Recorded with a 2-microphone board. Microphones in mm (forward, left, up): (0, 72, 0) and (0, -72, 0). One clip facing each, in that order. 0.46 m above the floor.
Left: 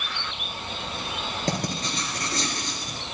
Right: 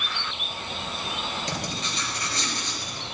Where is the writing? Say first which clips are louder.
Left 4 dB; 45° left (ahead or behind), 4 m.